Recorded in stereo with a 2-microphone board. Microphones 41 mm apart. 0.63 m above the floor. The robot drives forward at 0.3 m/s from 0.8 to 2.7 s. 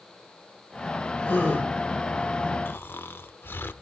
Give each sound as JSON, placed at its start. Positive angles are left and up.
{"t": 1.2, "sound": "a gasp", "side_deg": 60, "distance_m": 7.5}
{"t": 2.6, "sound": "snoring", "side_deg": 60, "distance_m": 1.0}